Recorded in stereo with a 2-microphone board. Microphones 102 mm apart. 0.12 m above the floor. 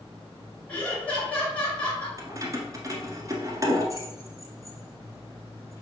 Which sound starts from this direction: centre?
Laughter, at 0.7 s.